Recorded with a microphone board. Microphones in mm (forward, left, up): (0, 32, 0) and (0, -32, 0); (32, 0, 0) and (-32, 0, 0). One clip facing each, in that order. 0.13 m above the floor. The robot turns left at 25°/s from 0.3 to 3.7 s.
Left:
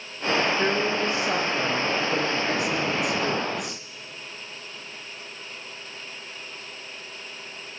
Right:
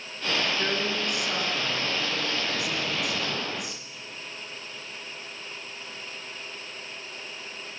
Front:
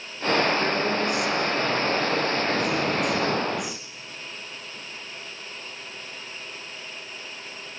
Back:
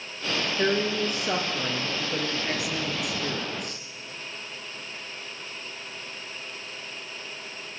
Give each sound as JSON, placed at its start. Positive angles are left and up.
{"t": 0.6, "sound": "a woman speaking", "azimuth_deg": 155, "distance_m": 2.5}